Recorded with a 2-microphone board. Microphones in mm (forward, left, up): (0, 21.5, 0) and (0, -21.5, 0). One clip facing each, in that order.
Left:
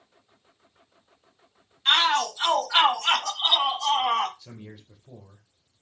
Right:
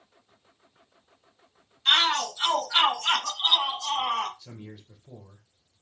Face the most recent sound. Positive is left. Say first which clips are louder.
# even
turn(degrees=15)  # may be behind; listen again after turning